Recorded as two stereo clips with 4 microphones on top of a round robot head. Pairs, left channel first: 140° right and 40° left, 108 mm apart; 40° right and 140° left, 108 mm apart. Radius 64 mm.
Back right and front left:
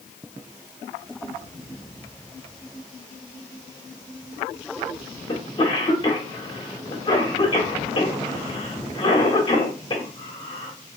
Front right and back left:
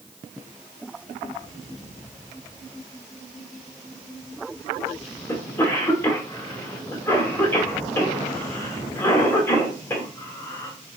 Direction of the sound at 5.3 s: 105° right.